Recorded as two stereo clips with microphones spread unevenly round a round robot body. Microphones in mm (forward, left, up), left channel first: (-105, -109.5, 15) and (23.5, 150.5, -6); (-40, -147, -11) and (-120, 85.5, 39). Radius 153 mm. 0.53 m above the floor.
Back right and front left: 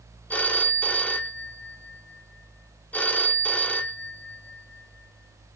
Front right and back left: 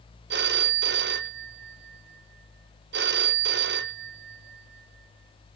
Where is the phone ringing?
155° left, 0.7 m.